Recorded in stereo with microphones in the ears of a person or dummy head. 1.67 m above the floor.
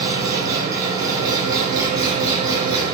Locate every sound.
0.0 s an engine running: 25° right (ahead or behind), 9 m